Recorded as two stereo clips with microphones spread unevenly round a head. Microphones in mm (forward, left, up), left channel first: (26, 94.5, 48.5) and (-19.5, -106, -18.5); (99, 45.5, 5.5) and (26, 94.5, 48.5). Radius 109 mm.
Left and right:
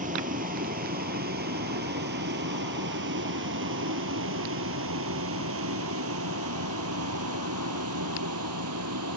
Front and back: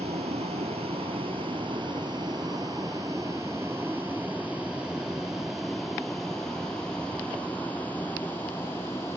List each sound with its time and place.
0.0 s a vehicle: 160° right; by 9.2 s 110° right